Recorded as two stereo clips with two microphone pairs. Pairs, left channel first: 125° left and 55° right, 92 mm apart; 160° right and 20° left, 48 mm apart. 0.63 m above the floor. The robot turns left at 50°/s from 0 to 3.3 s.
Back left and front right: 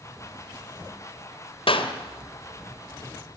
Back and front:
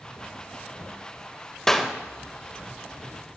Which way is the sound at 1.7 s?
115° left.